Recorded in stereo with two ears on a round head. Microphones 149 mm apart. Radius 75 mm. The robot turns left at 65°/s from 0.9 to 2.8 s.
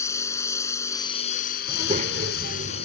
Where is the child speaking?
25° right; by 2.9 s 100° right.